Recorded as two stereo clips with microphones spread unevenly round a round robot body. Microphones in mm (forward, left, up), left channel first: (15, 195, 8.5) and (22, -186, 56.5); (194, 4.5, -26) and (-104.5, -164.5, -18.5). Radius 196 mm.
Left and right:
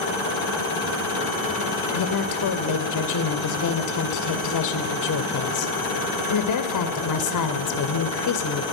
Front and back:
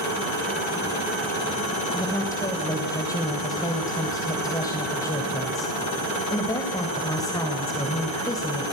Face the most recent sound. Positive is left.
turn(degrees=110)